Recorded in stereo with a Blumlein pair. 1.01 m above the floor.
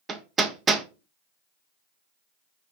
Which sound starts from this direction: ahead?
Hammering, at 0.1 s.